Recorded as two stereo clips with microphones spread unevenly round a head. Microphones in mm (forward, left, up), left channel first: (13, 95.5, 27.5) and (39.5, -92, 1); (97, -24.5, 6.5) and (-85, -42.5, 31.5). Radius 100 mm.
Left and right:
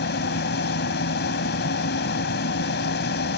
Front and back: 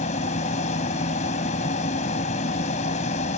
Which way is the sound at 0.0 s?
65° left.